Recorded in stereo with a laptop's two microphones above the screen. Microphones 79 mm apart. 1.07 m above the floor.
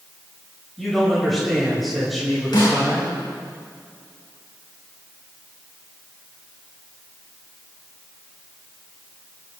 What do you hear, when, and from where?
0.8 s a man speaking: centre (ahead or behind), 6 m
2.5 s a snare drum: 70° left (ahead or behind), 4.5 m